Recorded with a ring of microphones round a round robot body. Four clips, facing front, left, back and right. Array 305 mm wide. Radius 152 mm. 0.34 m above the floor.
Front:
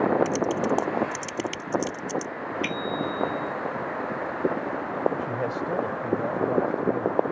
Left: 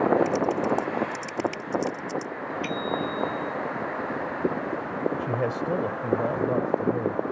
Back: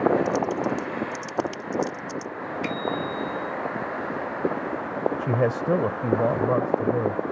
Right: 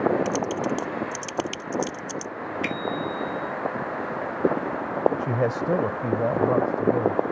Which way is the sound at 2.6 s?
45° right.